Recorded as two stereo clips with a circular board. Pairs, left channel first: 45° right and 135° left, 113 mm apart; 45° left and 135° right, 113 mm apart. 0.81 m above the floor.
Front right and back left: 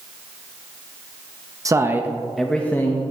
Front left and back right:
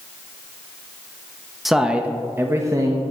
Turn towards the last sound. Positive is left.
turn(degrees=-100)